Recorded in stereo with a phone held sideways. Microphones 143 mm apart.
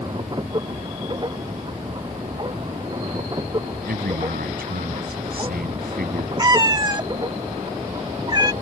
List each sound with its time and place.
0.0 s a machine running: 30° right (ahead or behind)
3.9 s a man speaking: 85° right
6.4 s a cat meowing: 25° right (ahead or behind)